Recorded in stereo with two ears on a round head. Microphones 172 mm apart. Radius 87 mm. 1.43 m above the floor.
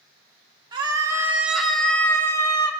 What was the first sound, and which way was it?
A scream, 25° right (ahead or behind).